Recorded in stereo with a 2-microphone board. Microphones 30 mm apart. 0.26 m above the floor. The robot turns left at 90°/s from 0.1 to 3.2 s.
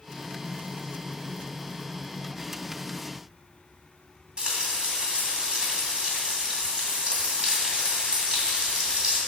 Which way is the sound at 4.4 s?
30° right (ahead or behind).